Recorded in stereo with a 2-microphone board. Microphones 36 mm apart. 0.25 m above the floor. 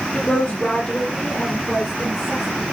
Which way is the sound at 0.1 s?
20° left (ahead or behind).